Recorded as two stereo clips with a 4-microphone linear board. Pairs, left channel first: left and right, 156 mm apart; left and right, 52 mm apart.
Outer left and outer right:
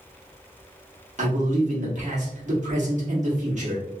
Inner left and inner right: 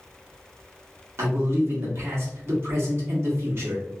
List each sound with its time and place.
1.2 s a man speaking: 50° right (ahead or behind), 1.1 m